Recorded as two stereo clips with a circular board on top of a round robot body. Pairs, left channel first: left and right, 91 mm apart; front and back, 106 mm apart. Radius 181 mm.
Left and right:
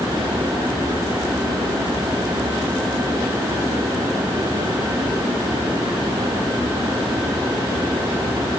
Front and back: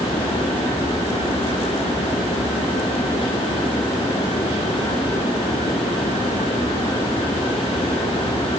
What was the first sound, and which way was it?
Only background noise.